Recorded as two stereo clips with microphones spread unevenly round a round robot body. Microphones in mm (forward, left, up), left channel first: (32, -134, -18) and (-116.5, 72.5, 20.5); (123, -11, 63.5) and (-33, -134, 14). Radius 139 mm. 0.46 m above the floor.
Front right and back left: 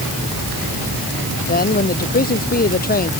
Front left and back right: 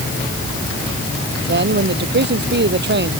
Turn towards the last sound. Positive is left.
turn(degrees=-110)